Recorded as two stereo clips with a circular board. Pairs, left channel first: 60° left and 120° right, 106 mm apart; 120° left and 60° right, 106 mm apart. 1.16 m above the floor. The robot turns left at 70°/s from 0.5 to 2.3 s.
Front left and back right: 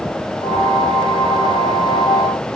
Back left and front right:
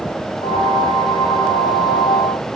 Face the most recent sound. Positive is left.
No sound to turn to.